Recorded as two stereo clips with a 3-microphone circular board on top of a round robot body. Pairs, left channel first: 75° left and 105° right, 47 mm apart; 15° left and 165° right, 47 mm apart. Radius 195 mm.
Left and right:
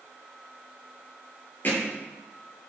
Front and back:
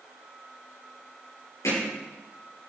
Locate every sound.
1.6 s hammering: 25° left, 7 m